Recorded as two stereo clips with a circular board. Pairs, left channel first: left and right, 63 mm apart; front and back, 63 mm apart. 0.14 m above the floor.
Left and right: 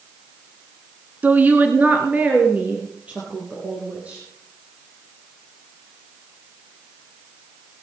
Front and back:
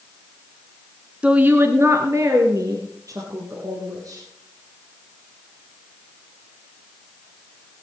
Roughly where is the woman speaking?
Behind right.